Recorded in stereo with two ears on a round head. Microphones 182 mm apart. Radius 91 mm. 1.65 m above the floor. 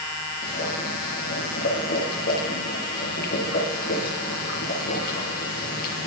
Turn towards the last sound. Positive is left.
turn(degrees=45)  # may be behind; listen again after turning